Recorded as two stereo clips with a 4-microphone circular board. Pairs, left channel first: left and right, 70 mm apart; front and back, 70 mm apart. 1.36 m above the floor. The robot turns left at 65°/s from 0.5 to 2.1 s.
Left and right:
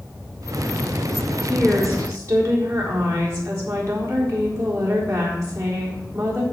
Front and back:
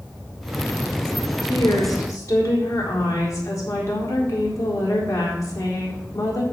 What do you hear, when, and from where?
1.4 s a woman speaking: straight ahead, 4 m; by 6.4 s 45° right, 4 m